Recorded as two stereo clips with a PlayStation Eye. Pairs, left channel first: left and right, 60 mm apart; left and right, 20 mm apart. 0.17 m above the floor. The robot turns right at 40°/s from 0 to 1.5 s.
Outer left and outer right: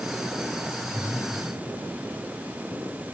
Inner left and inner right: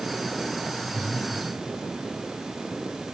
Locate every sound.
0.9 s breathing: 45° right (ahead or behind), 6.5 m; by 1.8 s 65° right (ahead or behind), 6.5 m